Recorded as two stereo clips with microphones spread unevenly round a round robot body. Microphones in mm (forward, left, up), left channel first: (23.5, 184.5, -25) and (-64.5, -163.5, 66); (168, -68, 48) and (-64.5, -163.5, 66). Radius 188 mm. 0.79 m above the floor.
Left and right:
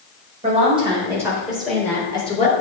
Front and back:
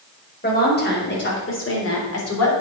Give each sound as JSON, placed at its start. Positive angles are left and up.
{"t": 0.4, "sound": "a woman speaking", "azimuth_deg": -30, "distance_m": 4.5}